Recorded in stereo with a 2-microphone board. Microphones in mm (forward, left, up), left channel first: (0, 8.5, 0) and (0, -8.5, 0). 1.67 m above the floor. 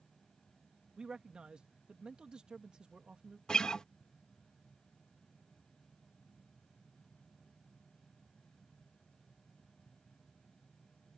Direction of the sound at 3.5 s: 45° left (ahead or behind).